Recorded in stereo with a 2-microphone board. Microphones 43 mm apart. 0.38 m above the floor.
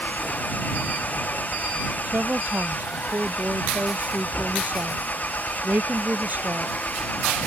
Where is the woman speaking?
45° right (ahead or behind).